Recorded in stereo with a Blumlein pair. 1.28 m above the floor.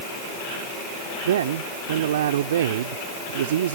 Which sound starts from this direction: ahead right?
A man speaking, at 1.2 s.